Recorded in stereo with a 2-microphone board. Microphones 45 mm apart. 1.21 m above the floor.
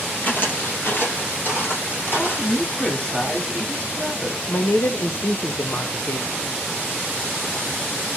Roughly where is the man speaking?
Left.